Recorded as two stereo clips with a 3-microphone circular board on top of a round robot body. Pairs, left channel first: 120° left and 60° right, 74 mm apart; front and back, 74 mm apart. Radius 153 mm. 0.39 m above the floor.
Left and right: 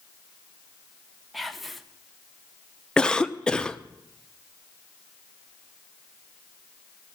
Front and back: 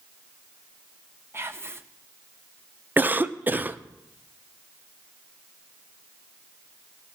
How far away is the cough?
About 0.7 m.